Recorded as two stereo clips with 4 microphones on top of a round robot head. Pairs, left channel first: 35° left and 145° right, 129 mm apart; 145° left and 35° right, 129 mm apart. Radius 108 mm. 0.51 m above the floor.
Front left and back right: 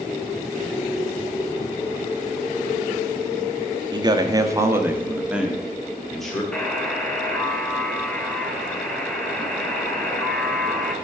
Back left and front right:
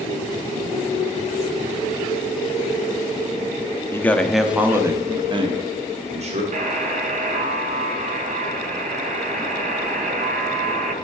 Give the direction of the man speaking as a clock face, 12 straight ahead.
5 o'clock.